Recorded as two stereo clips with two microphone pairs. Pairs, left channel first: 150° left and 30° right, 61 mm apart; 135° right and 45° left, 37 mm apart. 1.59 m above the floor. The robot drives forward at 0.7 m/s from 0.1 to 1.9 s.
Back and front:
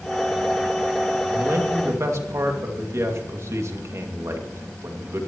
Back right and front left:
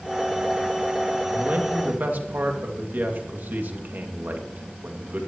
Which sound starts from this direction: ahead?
A man speaking, at 1.3 s.